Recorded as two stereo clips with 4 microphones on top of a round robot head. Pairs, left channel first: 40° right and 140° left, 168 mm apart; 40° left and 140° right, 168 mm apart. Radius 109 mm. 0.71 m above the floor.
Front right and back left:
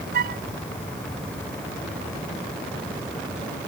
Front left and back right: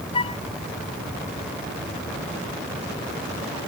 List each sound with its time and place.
0.1 s a flute: 100° left